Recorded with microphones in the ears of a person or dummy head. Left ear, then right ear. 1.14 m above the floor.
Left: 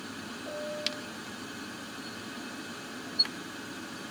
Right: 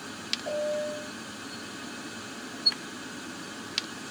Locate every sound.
0.5 s a piano: 50° right (ahead or behind)